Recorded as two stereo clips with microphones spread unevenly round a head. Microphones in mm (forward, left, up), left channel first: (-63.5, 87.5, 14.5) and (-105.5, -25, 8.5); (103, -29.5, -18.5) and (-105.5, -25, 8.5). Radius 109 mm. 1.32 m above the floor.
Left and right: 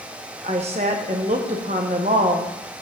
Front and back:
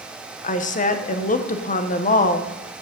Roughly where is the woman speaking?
Ahead right.